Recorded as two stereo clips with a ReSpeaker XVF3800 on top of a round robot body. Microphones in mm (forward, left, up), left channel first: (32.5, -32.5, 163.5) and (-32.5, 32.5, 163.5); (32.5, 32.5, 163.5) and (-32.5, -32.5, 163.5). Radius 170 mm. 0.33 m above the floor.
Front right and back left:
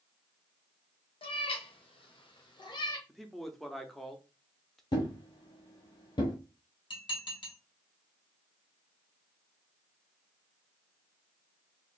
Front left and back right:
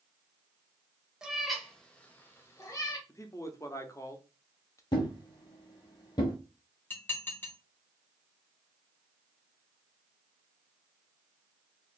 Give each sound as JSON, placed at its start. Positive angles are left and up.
{"t": 1.2, "sound": "a cat meowing", "azimuth_deg": -50, "distance_m": 1.1}
{"t": 3.1, "sound": "a man speaking", "azimuth_deg": 40, "distance_m": 0.9}
{"t": 4.9, "sound": "a thud", "azimuth_deg": 0, "distance_m": 0.7}
{"t": 6.9, "sound": "dishes clattering", "azimuth_deg": -20, "distance_m": 1.7}